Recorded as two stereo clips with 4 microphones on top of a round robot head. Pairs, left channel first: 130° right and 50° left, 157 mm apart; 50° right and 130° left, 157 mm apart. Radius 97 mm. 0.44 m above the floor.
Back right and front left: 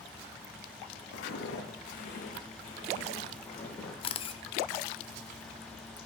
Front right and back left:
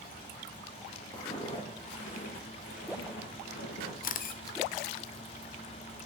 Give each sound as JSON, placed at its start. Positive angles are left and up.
{"t": 1.1, "sound": "footsteps", "azimuth_deg": -120, "distance_m": 1.5}
{"t": 4.0, "sound": "a camera shutter", "azimuth_deg": -75, "distance_m": 0.5}